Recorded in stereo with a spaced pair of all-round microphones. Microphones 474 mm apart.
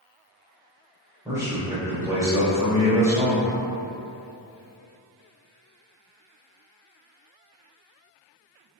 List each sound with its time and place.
1.2 s a man speaking: 5° right (ahead or behind), 1.0 m